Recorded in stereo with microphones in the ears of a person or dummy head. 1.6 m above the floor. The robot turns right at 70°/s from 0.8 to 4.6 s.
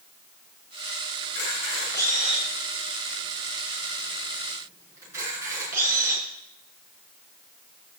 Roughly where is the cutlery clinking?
I don't hear cutlery clinking.